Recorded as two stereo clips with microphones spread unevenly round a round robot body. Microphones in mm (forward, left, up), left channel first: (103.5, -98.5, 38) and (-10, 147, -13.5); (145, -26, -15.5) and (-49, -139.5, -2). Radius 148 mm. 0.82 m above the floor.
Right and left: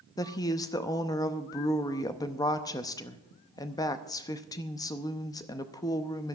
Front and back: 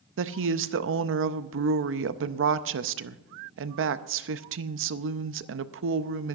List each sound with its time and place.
0.2 s a woman speaking: 150° right, 0.6 m